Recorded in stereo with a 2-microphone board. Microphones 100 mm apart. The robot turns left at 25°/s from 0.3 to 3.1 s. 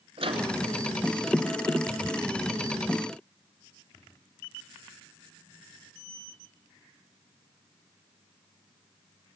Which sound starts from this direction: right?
A microwave, at 0.2 s.